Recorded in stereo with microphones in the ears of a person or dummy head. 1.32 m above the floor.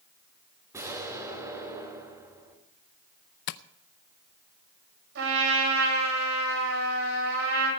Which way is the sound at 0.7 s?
15° right (ahead or behind).